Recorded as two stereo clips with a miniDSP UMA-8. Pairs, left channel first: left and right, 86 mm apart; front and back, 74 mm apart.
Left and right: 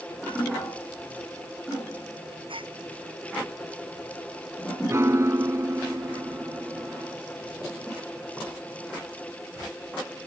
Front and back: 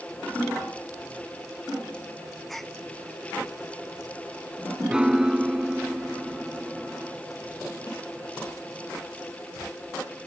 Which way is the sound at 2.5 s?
90° right.